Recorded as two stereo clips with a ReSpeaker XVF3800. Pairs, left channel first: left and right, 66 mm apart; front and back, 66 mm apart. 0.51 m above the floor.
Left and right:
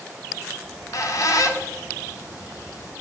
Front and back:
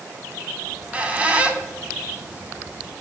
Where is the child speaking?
I don't hear a child speaking.